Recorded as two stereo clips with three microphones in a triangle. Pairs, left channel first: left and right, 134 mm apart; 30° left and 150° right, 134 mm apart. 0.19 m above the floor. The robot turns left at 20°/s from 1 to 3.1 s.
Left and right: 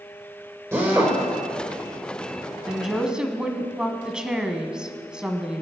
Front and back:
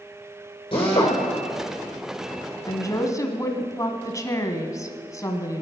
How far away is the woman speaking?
About 1.5 m.